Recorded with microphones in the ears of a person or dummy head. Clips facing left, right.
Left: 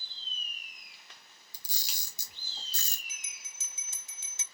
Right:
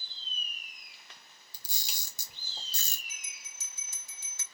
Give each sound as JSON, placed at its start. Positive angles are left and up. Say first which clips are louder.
{"t": 1.5, "sound": "a camera shutter", "louder": "right 2 dB", "side_deg": -30, "distance_m": 1.6}
{"t": 3.1, "sound": "a bell", "louder": "right 1 dB", "side_deg": 20, "distance_m": 0.7}